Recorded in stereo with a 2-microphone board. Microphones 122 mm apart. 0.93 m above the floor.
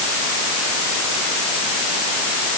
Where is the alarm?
No alarm in this recording.